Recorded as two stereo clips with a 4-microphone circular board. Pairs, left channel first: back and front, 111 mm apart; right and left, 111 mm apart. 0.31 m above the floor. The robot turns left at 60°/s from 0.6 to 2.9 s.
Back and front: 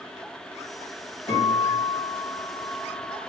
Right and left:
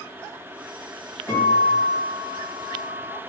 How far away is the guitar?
About 2.0 m.